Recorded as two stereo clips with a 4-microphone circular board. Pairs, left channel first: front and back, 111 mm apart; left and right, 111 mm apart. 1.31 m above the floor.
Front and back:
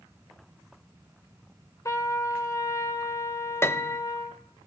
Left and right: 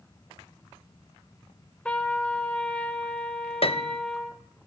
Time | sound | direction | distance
1.9 | a trumpet | 25° left | 1.1 m
3.6 | a piano | 65° left | 0.6 m